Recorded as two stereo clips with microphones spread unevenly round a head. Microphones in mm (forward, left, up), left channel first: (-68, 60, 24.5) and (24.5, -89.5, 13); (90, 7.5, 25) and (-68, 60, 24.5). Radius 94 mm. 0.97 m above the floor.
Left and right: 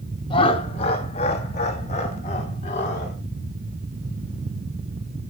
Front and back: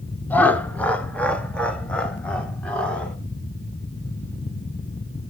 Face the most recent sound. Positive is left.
turn(degrees=65)